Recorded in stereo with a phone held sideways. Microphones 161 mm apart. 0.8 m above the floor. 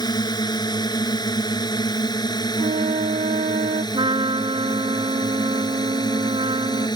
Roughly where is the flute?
Right.